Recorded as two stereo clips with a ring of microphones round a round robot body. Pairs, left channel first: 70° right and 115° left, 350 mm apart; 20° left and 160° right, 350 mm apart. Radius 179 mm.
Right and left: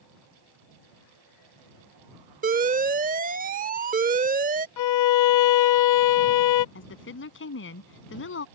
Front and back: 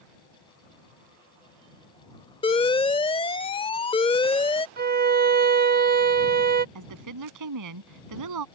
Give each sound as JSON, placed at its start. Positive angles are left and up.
{"t": 2.4, "sound": "an alarm", "azimuth_deg": 80}
{"t": 4.8, "sound": "a violin", "azimuth_deg": -95}
{"t": 6.8, "sound": "a woman speaking", "azimuth_deg": -125}